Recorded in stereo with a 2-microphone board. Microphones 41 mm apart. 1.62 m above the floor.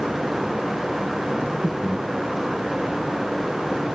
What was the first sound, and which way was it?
Breathing, 20° right (ahead or behind).